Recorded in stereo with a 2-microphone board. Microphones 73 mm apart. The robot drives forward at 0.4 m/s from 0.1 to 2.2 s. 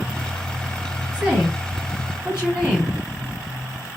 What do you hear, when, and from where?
1.1 s a woman speaking: 15° right (ahead or behind), 1.8 m; by 3.0 s 10° right (ahead or behind), 2 m